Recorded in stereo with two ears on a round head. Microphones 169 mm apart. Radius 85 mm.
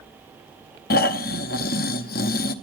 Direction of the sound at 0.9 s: 50° left (ahead or behind).